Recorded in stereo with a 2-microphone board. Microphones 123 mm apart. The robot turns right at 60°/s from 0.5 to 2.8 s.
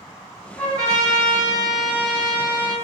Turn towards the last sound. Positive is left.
turn(degrees=140)